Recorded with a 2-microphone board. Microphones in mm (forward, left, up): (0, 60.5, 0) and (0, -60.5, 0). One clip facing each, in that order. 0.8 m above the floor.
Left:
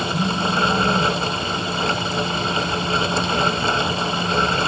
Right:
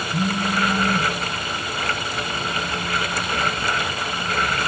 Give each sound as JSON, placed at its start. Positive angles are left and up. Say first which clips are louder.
{"t": 0.1, "sound": "a phone buzzing", "louder": "right 1 dB", "side_deg": -45, "distance_m": 1.9}